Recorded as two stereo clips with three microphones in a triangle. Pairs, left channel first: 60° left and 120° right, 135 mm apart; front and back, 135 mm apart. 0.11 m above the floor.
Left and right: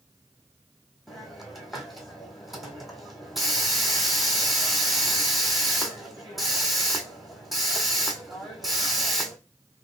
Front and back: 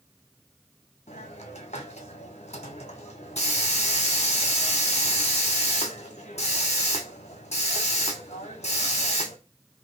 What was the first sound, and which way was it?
A hiss, 30° right.